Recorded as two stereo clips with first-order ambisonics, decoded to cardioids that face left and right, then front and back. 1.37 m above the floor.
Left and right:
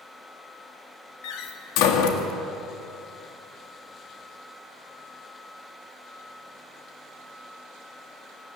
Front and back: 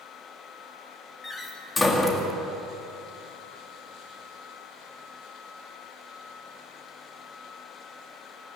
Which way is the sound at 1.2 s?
80° left.